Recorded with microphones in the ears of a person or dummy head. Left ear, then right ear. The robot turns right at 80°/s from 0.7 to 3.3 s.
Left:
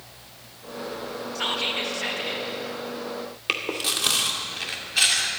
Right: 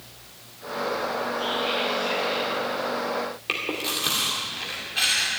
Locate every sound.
1.4 s whispering: 60° left, 2.5 m; by 2.5 s 150° left, 2.5 m
3.5 s chewing: 25° left (ahead or behind), 2 m